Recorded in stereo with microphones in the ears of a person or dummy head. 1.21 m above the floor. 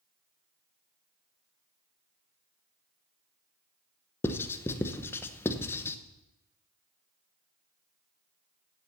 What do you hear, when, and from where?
4.2 s writing: 15° left (ahead or behind), 0.7 m